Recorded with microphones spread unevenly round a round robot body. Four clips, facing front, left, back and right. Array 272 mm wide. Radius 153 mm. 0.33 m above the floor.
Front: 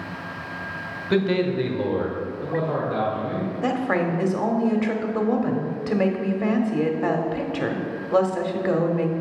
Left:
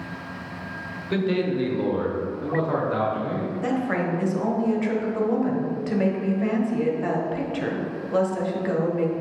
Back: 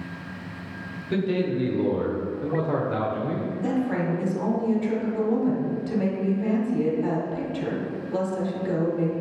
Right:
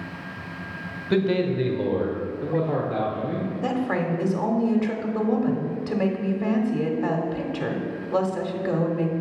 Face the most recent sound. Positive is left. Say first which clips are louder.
# even, front 3 dB
turn(degrees=0)